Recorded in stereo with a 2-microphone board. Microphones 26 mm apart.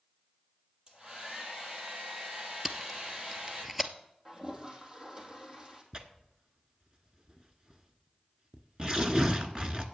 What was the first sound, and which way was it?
A hair dryer, 20° right (ahead or behind).